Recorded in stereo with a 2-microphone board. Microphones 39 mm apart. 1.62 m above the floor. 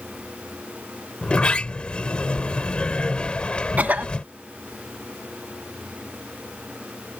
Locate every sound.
1.2 s a sliding door: 30° left (ahead or behind)
3.8 s a cough: 45° right (ahead or behind)